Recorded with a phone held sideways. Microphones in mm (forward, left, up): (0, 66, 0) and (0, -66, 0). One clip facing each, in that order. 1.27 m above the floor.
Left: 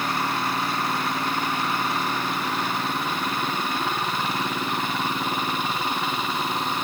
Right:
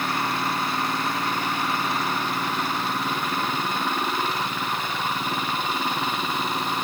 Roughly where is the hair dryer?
No hair dryer in this recording.